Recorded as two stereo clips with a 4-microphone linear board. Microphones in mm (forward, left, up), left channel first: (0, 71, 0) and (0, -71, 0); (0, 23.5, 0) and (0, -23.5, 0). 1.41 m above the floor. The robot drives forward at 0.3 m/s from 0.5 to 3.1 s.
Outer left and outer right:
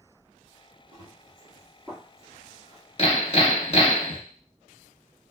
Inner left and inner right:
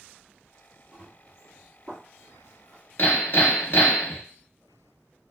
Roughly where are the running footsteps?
Right.